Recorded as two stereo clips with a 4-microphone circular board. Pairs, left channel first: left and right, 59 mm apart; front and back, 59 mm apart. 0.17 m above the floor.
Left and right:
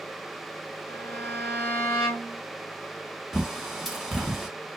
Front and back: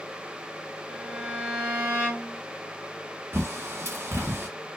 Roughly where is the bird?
Behind.